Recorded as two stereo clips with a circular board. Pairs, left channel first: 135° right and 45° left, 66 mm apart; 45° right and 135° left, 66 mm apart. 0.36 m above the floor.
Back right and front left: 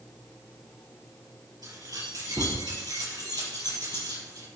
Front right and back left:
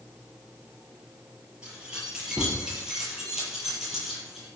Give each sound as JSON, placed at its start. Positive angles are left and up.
{"t": 1.6, "sound": "keys jangling", "azimuth_deg": 60, "distance_m": 5.0}